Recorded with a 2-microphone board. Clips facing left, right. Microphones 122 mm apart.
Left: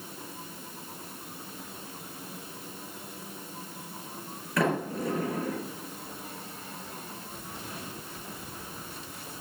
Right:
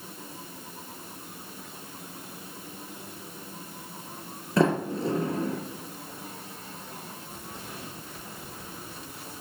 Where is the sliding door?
30° right (ahead or behind), 3 m.